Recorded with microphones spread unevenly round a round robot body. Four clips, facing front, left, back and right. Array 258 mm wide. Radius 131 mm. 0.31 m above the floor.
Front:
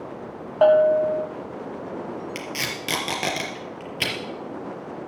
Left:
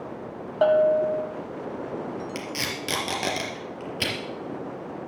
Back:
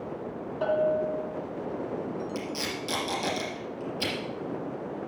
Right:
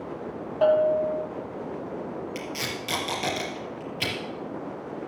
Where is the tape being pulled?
35° left, 4 m.